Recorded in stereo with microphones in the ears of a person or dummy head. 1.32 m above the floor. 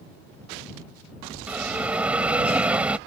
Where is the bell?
10° right (ahead or behind).